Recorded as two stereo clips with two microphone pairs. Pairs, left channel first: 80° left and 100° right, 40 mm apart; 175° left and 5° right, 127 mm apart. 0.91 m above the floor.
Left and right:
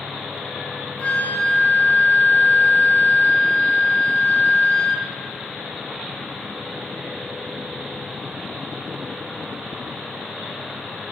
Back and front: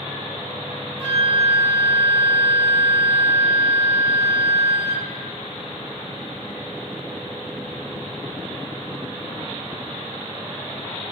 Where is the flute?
30° left, 2.5 m.